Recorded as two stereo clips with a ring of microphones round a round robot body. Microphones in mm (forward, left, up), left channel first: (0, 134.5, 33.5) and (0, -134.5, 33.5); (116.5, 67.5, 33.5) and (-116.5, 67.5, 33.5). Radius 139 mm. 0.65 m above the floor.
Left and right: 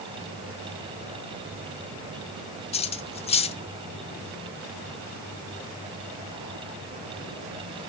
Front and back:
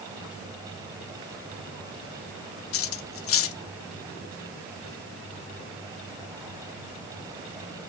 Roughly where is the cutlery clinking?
Ahead.